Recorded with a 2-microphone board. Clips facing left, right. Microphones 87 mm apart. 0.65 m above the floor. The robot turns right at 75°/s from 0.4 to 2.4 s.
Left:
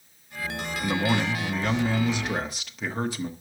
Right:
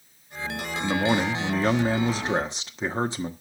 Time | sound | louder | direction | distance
0.8 | a man speaking | right 2 dB | 165° right | 1.0 m